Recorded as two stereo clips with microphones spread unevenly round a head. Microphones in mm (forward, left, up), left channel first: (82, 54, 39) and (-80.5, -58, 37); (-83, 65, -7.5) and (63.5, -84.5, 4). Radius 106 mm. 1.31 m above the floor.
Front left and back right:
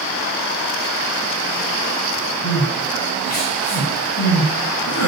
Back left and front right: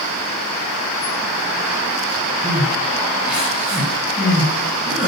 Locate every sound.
2.4 s crying: 40° left, 8.5 m